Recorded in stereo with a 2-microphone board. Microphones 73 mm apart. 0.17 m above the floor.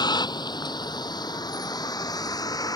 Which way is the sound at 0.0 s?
75° left (ahead or behind).